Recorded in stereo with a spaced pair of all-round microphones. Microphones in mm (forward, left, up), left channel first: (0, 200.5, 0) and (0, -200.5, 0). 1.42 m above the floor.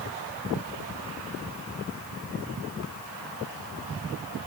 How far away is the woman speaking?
No woman speaking in this recording.